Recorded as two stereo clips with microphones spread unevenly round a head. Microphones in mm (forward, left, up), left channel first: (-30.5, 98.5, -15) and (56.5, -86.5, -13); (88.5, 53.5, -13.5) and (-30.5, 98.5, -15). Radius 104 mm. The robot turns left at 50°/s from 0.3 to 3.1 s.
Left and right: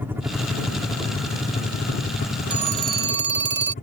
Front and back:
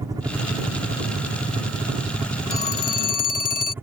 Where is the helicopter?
140° right; by 3.8 s 95° left.